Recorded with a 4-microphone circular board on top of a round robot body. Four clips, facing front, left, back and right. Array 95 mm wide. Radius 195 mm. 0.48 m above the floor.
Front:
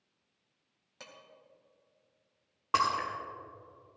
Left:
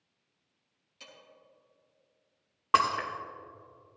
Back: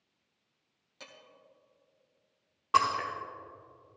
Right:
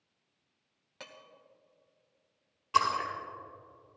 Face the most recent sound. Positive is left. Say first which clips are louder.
# left 2 dB, back 2 dB
turn(degrees=75)